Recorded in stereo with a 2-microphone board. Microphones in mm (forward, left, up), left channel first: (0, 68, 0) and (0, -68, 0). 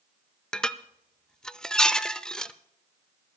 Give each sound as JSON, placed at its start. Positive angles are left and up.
{"t": 0.5, "sound": "dishes clattering", "side_deg": 5, "distance_m": 0.5}